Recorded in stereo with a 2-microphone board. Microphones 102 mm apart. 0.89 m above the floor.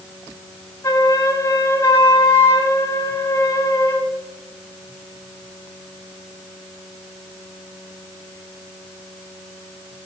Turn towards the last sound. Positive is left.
turn(degrees=25)  # may be behind; listen again after turning